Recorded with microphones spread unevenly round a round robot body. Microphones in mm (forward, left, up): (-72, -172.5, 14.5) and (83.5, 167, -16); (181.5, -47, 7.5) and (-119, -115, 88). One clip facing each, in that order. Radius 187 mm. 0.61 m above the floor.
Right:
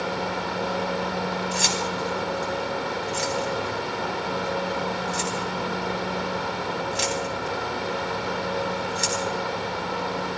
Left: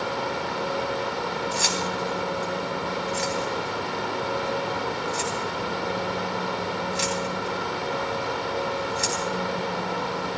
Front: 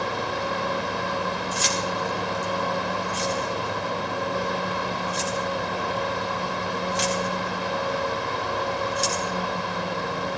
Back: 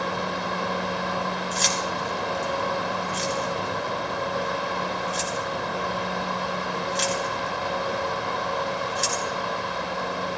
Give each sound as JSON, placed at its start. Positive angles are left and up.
{"t": 1.5, "sound": "keys jangling", "azimuth_deg": -65, "distance_m": 3.5}